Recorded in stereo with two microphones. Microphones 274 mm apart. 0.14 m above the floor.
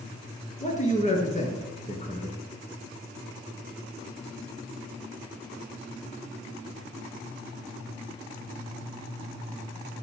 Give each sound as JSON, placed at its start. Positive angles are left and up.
{"t": 0.6, "sound": "a man speaking", "side_deg": 25, "distance_m": 1.9}